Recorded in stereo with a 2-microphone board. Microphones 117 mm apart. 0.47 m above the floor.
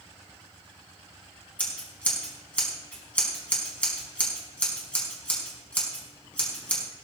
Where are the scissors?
10° left (ahead or behind), 4.5 m.